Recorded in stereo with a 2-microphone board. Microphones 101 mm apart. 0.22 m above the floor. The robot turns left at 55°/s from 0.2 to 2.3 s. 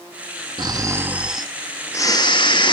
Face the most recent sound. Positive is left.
turn(degrees=130)